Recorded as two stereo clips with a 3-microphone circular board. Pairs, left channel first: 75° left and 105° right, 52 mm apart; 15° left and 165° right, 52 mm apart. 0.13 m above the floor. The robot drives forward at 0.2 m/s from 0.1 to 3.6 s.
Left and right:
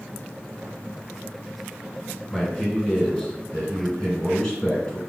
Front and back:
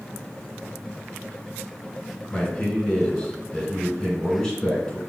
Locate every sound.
2.3 s a man speaking: 60° left, 1.7 m; by 5.0 s 85° left, 1.6 m